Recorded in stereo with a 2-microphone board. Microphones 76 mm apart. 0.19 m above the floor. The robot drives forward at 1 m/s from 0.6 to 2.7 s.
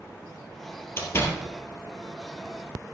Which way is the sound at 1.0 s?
35° left (ahead or behind).